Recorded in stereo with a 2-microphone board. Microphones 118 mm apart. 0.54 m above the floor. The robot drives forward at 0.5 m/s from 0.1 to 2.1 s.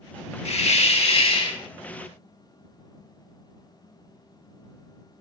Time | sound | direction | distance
0.5 | a hiss | 60° left (ahead or behind) | 0.6 m